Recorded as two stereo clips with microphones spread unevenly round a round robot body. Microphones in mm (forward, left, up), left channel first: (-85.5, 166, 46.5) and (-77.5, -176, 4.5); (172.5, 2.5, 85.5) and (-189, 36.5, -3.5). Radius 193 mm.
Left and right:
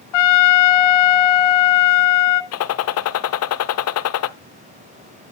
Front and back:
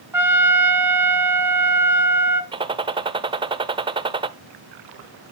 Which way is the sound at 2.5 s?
125° left.